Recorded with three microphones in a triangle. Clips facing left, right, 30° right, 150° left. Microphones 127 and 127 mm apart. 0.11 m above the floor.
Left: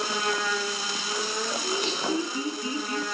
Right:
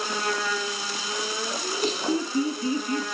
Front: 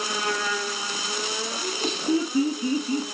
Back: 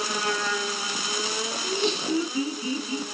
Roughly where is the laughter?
Ahead right.